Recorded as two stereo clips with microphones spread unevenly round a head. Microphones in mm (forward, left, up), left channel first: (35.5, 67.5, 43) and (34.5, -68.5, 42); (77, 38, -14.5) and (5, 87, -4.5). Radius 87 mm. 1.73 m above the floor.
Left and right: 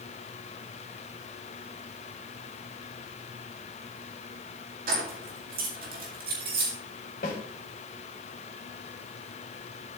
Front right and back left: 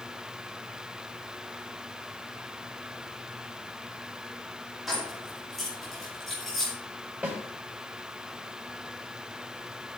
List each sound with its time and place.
4.9 s keys jangling: 130° right, 2 m
7.2 s a snare drum: 75° left, 3.5 m